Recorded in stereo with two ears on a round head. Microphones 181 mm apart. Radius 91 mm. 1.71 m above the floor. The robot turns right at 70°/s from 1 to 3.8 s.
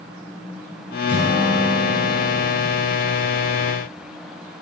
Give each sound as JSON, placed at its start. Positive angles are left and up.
{"t": 1.1, "sound": "a guitar", "azimuth_deg": -45, "distance_m": 7.0}